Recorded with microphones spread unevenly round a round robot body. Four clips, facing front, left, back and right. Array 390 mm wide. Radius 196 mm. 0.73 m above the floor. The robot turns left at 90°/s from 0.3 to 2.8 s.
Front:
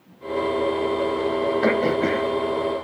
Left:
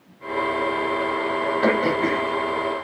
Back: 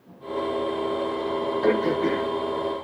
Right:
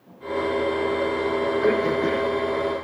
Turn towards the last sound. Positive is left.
turn(degrees=-75)